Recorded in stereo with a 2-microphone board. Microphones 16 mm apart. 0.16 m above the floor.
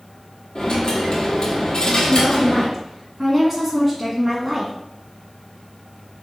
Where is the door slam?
No door slam in this recording.